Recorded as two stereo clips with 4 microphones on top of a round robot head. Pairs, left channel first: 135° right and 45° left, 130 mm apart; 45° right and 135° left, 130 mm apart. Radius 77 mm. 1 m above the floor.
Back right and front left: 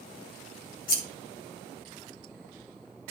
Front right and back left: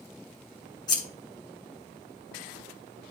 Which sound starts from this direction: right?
Scissors, at 0.9 s.